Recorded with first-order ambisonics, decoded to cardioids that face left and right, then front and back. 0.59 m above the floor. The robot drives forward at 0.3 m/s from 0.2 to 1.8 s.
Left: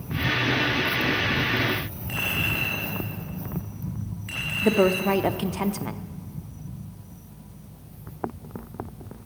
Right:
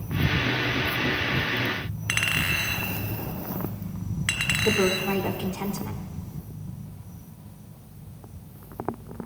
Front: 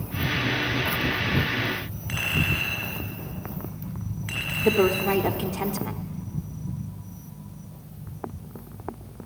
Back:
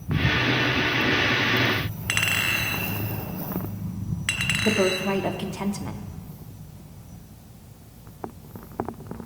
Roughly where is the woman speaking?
Left.